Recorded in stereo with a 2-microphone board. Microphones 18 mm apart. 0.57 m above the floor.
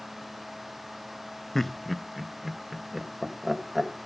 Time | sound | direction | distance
1.6 | laughter | 20° left (ahead or behind) | 0.6 m